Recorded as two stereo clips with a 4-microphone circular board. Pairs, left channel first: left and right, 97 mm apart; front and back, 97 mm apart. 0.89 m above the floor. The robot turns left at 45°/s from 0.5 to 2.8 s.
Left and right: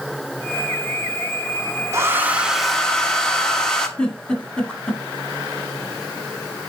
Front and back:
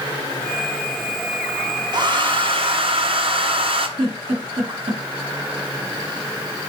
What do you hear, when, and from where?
1.9 s a hair dryer: 145° right, 1.0 m; by 3.9 s 175° left, 1.0 m
4.0 s a giggle: 170° left, 1.6 m